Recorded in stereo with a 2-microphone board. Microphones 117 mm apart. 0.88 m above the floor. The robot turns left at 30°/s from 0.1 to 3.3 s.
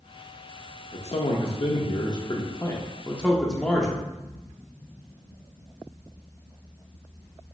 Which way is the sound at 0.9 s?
80° left.